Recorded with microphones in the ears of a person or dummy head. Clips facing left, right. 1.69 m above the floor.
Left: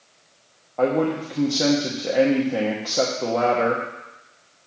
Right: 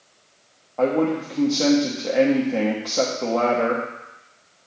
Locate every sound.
0.8 s a man speaking: 10° left (ahead or behind), 1.0 m